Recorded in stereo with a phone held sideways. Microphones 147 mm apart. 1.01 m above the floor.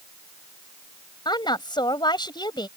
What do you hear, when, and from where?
1.2 s a woman speaking: 30° left (ahead or behind)